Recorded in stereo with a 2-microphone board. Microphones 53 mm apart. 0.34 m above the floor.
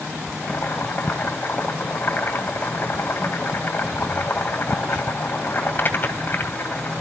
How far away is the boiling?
About 2.5 m.